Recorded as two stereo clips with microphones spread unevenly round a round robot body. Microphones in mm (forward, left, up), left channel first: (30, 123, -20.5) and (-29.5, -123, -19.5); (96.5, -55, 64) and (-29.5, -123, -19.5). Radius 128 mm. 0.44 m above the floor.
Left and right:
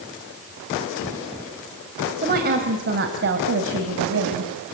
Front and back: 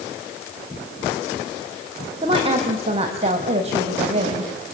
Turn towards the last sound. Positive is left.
turn(degrees=-140)